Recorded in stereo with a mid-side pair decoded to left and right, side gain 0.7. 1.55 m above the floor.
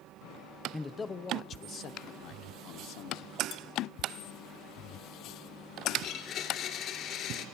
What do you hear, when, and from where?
0.7 s a man speaking: 10° left, 0.9 m; by 3.4 s 70° left, 1.8 m
3.5 s dishes clattering: 60° left, 2.5 m
6.0 s a blender: 50° left, 3 m